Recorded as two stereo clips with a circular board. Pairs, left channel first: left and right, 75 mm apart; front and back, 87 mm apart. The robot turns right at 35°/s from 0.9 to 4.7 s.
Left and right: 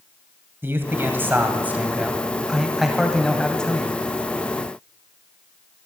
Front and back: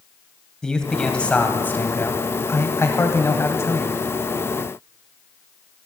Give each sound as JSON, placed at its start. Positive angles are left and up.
{"t": 0.6, "sound": "a man speaking", "azimuth_deg": -75, "distance_m": 1.8}